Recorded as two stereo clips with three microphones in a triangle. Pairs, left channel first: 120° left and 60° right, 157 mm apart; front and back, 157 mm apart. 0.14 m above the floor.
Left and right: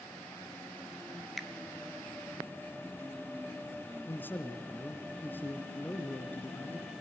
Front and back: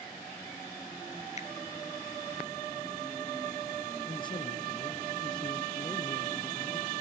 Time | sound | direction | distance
1.4 | a finger snap | 30° left | 1.9 m
4.0 | a man speaking | 45° left | 2 m